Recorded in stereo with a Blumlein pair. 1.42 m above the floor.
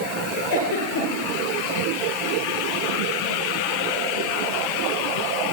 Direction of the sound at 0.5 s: 35° left.